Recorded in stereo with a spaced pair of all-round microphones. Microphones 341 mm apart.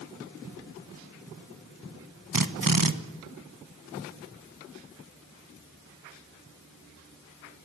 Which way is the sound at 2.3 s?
70° right (ahead or behind).